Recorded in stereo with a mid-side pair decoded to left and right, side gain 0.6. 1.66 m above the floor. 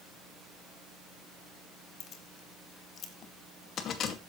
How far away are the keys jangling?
About 2 m.